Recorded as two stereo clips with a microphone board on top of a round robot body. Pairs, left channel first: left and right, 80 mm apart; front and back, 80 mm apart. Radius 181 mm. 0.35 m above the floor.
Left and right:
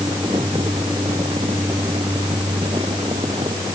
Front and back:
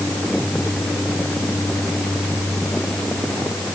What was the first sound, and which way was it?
Only background noise.